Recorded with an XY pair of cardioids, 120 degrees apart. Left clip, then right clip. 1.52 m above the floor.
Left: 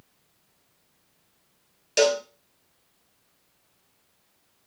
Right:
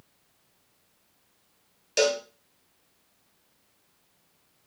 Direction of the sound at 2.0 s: 10° left.